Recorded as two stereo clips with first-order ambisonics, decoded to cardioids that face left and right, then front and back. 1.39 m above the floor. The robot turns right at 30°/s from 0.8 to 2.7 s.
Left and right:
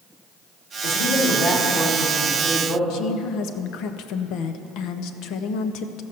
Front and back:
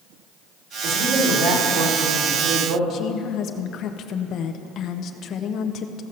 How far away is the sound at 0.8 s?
About 2.5 m.